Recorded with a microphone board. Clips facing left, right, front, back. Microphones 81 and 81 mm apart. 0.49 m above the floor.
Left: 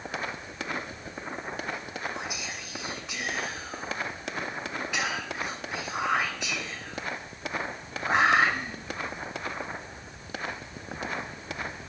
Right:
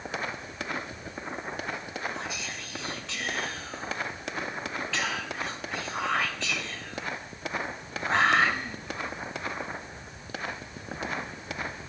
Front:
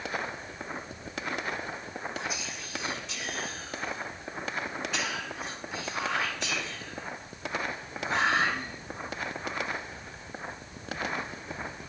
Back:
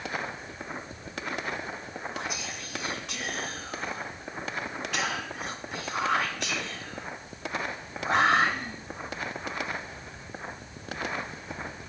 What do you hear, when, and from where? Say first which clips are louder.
2.1 s whispering: even, back 1 dB; 165° left, 2 m